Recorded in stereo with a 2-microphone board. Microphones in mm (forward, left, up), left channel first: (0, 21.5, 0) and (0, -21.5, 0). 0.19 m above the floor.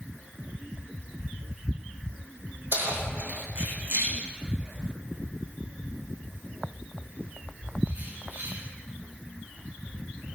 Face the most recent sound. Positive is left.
turn(degrees=-80)